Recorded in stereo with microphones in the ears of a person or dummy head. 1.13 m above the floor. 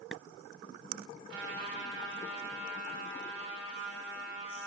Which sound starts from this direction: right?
A trumpet, at 1.3 s.